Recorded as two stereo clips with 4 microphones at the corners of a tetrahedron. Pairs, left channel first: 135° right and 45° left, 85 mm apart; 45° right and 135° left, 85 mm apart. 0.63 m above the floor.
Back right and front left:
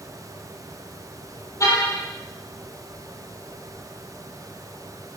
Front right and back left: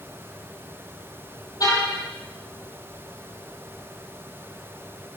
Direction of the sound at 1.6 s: 85° right.